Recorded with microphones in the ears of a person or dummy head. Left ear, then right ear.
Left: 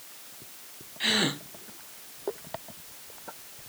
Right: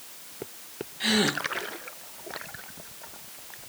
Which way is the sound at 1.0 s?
15° left (ahead or behind).